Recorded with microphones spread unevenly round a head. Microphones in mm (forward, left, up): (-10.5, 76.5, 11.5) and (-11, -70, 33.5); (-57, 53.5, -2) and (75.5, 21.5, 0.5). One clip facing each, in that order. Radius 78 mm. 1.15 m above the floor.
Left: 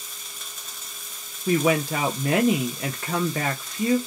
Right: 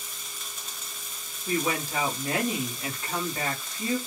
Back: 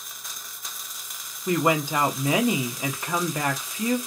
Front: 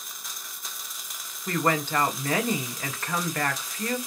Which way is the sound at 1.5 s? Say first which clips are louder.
Left 7 dB, back 3 dB; 90° left.